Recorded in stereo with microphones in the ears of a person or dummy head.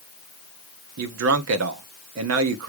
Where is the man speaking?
75° right (ahead or behind), 0.9 m.